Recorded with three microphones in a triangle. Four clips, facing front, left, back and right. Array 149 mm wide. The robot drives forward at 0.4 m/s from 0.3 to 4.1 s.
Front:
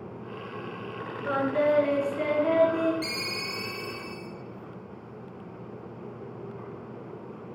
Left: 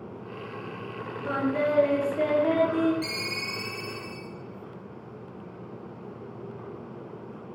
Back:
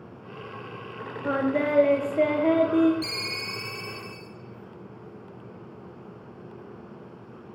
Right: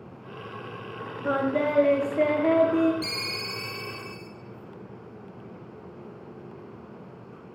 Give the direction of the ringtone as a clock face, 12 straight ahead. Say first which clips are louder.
Left 1 dB, front 1 dB; 5 o'clock.